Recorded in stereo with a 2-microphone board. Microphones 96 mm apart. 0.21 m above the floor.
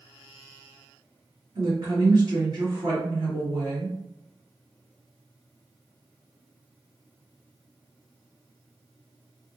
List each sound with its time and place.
1.6 s a woman speaking: 40° right (ahead or behind), 1.8 m